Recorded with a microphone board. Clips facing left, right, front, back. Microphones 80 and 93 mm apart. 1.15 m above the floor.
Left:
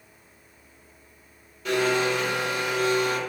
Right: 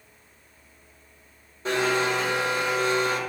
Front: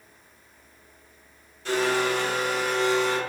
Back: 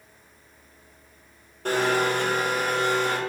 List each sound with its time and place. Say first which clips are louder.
1.6 s a blender: left 1 dB, back 1 dB; 145° right, 2 m